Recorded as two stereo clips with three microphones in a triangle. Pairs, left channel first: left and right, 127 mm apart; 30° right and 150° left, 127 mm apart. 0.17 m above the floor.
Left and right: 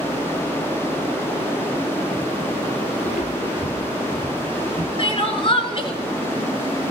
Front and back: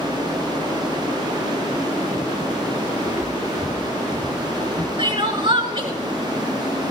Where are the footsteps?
80° left, 1.3 m.